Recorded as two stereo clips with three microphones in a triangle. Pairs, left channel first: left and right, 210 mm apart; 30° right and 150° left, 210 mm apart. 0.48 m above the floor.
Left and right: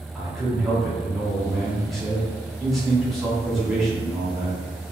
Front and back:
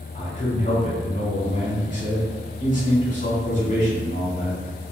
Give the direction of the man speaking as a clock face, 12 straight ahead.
12 o'clock.